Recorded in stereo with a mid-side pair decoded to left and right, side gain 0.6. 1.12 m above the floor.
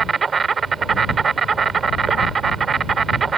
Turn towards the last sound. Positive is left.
turn(degrees=-30)